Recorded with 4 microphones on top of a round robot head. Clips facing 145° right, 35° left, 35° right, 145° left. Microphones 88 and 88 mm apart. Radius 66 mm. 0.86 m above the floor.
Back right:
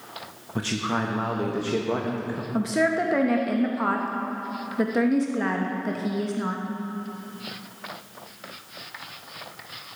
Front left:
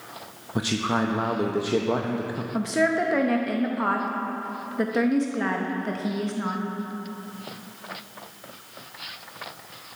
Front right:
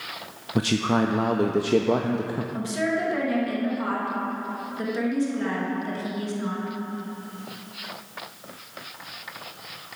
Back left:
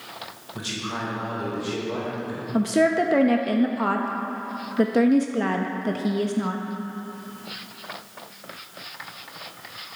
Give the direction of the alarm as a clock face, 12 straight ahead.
No alarm in this recording.